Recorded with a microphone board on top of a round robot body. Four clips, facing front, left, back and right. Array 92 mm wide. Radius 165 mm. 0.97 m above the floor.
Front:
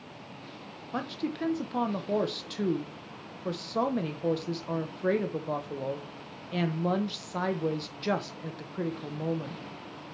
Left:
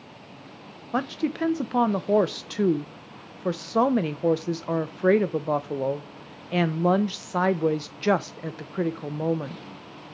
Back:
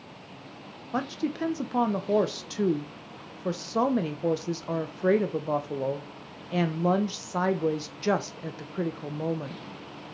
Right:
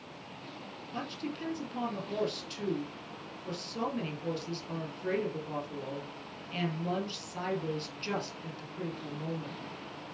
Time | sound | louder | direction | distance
0.9 | a woman speaking | left 12 dB, back 4 dB | 105° left | 0.8 m